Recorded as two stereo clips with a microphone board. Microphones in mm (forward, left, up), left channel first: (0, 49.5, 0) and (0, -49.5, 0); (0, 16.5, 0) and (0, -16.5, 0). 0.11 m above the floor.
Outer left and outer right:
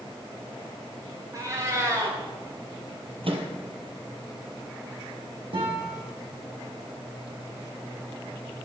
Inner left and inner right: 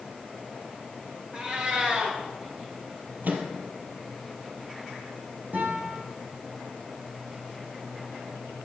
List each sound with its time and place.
1.3 s a cat meowing: 35° right (ahead or behind), 6.5 m
3.2 s a microwave: 65° right (ahead or behind), 2.5 m
5.5 s a guitar: 65° right (ahead or behind), 6.5 m